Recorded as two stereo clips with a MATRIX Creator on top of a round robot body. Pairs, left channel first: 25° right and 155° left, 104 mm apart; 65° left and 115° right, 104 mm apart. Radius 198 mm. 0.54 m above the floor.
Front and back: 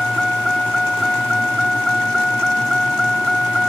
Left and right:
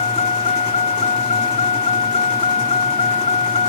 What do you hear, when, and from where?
0.0 s a vehicle: 65° left